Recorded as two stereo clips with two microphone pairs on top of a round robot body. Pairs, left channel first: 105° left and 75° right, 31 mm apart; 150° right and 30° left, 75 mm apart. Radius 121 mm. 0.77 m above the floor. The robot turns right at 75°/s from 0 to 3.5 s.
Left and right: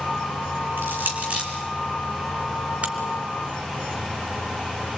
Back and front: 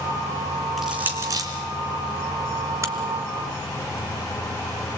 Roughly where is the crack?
Ahead right.